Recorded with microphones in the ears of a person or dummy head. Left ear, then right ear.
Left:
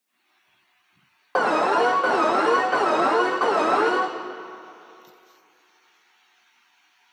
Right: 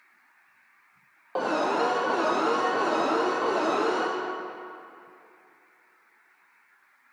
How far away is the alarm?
About 0.8 m.